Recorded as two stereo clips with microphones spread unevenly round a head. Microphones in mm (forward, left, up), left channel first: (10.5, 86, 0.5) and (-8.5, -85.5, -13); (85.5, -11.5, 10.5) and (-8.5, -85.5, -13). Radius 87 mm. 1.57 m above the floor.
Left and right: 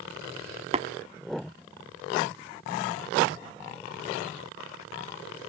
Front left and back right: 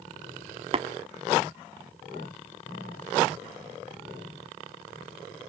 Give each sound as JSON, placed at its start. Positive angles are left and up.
{"t": 0.7, "sound": "tapping", "azimuth_deg": -130, "distance_m": 1.3}